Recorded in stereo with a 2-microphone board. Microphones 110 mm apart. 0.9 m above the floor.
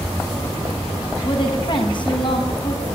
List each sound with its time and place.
1.2 s a woman speaking: 45° left (ahead or behind), 6 m